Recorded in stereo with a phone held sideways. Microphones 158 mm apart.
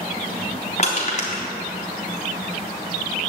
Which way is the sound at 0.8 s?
50° left (ahead or behind).